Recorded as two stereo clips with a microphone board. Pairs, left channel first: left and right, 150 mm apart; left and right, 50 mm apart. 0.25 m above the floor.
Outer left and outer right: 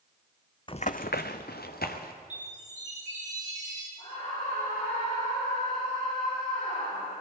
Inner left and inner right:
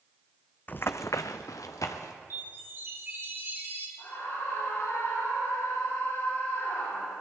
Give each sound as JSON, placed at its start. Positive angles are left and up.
{"t": 0.7, "sound": "running footsteps", "side_deg": 30, "distance_m": 0.6}
{"t": 2.3, "sound": "a chime", "side_deg": -50, "distance_m": 3.5}
{"t": 4.0, "sound": "a scream", "side_deg": 45, "distance_m": 8.5}